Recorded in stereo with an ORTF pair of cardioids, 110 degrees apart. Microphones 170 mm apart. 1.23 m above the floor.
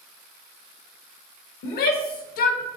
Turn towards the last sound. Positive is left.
turn(degrees=60)